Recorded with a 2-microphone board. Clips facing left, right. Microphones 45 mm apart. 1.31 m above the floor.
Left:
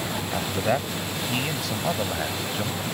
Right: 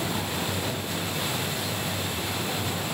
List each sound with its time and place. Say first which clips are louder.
0.3 s a man speaking: left 5 dB; 70° left (ahead or behind); by 2.9 s 75° left (ahead or behind)